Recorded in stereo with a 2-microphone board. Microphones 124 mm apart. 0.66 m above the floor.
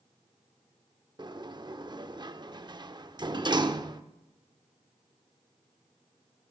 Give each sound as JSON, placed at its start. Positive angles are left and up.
{"t": 1.2, "sound": "a sliding door", "side_deg": -35, "distance_m": 0.5}